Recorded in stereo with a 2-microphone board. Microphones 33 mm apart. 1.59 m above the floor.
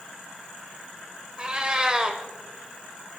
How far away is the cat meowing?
About 1.6 m.